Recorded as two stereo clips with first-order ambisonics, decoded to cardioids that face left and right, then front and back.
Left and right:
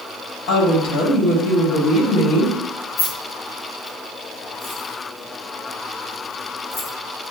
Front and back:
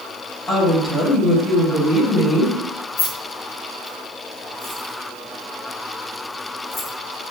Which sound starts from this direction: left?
A woman speaking, at 0.5 s.